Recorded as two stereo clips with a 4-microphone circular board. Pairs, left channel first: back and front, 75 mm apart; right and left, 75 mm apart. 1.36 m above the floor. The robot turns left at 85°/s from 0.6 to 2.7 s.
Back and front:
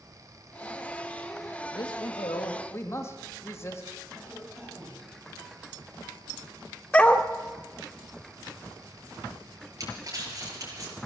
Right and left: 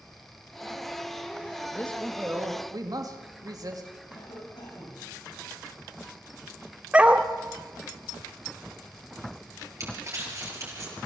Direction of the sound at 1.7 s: 150° right.